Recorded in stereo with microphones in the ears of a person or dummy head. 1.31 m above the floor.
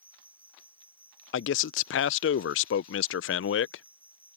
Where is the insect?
10° right (ahead or behind).